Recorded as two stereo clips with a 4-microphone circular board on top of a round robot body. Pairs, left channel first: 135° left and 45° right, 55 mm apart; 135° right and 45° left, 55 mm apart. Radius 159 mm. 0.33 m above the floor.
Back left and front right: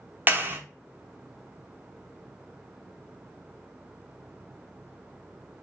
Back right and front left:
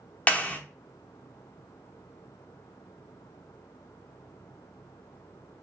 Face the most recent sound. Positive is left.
turn(degrees=-80)